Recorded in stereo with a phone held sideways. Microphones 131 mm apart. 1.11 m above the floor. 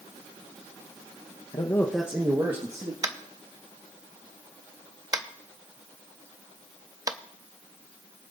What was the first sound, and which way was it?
A man speaking, 40° left (ahead or behind).